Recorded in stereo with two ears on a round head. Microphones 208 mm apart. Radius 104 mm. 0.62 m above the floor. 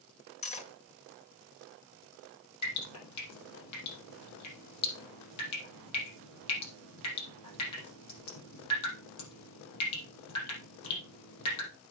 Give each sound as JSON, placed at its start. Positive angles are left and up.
{"t": 0.4, "sound": "cutlery clinking", "side_deg": 30, "distance_m": 1.3}
{"t": 2.6, "sound": "dripping", "side_deg": 80, "distance_m": 5.0}